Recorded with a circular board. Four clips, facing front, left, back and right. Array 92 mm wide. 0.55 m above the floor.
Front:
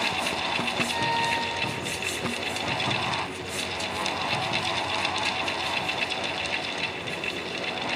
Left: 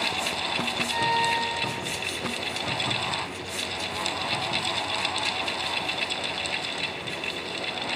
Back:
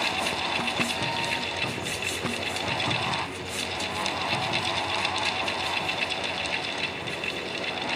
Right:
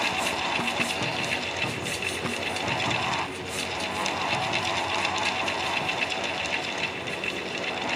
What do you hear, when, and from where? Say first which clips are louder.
0.9 s a violin: left 6 dB, front 4 dB; 65° left